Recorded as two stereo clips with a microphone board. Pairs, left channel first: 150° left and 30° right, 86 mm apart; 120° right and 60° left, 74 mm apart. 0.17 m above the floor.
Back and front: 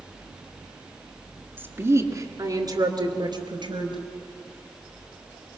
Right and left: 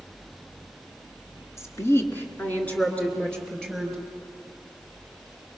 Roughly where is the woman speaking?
Right.